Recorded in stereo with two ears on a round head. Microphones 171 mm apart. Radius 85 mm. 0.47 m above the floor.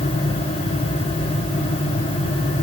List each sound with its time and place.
Only background noise.